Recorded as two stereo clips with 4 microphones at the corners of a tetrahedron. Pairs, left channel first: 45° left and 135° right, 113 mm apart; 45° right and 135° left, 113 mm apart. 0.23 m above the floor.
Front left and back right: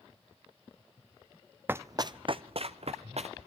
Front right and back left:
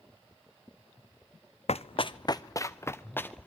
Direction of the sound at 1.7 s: 65° right.